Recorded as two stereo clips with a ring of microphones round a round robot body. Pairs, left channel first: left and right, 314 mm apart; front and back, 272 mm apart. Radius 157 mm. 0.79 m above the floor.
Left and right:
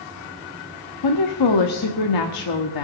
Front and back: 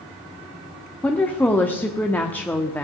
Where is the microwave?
No microwave in this recording.